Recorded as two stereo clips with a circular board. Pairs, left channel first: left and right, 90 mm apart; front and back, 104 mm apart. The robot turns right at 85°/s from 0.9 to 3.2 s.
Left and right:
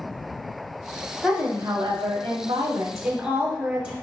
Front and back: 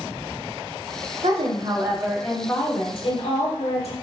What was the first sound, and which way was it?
A woman speaking, straight behind.